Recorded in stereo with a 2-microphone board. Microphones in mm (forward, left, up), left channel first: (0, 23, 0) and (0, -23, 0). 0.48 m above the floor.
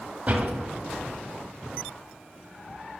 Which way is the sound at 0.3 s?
35° right (ahead or behind).